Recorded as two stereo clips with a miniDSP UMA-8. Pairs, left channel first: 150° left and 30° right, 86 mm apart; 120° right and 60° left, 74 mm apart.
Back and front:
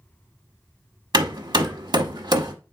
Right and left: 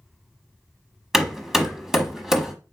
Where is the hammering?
25° right, 0.7 m.